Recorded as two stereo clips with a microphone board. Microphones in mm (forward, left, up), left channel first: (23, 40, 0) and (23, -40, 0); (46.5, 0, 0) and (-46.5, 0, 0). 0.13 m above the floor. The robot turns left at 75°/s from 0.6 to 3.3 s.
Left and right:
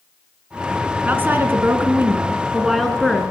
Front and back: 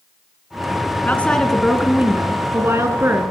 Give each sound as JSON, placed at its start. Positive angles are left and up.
{"t": 1.1, "sound": "a woman speaking", "azimuth_deg": -45, "distance_m": 1.7}